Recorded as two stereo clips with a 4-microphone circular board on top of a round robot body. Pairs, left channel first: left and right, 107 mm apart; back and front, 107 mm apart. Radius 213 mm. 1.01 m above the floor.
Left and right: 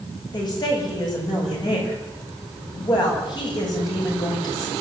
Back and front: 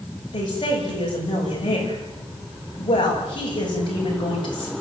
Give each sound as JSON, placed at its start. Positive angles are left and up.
{"t": 0.3, "sound": "a woman speaking", "azimuth_deg": 135, "distance_m": 8.5}